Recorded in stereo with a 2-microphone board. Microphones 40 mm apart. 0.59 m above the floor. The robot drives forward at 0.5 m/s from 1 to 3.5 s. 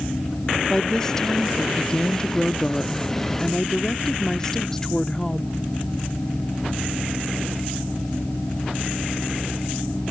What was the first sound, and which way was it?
A woman speaking, 15° left (ahead or behind).